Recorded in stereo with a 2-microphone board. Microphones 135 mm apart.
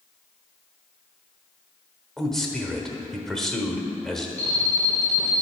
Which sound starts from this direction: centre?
A man speaking, at 2.2 s.